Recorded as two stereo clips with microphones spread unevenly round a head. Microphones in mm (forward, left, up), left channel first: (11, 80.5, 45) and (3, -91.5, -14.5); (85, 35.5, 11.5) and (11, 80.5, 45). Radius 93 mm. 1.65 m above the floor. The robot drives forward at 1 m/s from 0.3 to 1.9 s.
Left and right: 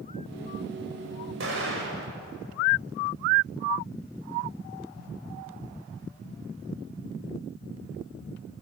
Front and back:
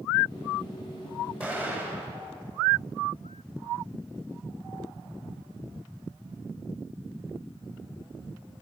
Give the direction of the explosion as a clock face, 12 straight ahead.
4 o'clock.